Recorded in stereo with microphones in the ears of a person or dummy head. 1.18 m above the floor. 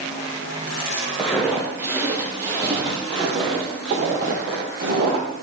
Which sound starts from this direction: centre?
Footsteps, at 1.2 s.